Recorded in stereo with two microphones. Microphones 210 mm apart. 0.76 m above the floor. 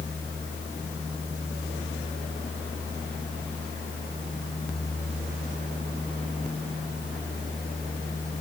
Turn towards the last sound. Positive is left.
No sound to turn to.